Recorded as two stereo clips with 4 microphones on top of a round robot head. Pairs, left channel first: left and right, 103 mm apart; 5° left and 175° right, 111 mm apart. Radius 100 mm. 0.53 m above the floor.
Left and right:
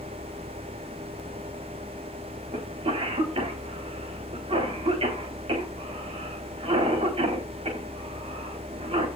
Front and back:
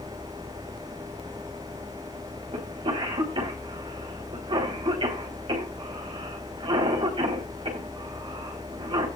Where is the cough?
125° right, 4 m.